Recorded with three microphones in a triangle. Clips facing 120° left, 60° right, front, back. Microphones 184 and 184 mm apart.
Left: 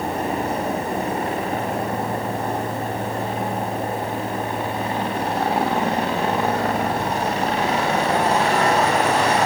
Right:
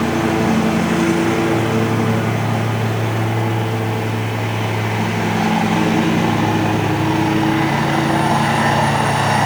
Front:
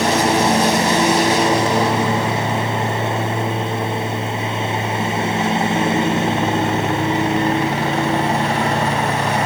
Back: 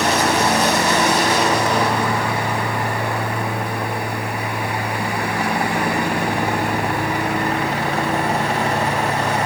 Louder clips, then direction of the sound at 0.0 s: Right 8 dB, front 2 dB; 65° right.